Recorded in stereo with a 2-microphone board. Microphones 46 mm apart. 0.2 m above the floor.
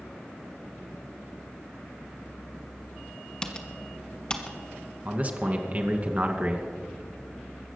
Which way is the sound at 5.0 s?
35° right (ahead or behind).